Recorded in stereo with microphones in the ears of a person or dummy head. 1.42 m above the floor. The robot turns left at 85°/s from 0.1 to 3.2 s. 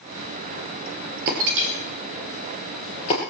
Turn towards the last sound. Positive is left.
turn(degrees=40)  # may be behind; listen again after turning